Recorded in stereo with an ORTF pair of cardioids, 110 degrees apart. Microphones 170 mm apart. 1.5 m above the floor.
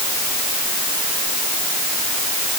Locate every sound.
Only background noise.